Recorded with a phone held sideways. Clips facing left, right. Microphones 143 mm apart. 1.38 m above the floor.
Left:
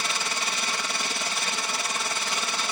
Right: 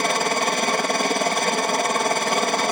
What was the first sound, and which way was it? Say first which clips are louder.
A helicopter: right 11 dB; 55° right (ahead or behind).